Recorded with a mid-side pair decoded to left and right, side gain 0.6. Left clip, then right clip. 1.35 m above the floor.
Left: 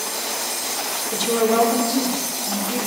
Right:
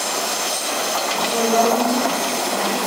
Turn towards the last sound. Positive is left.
turn(degrees=45)